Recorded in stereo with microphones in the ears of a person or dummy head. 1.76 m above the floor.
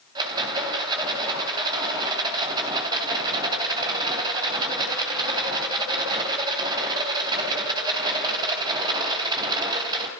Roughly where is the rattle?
Right.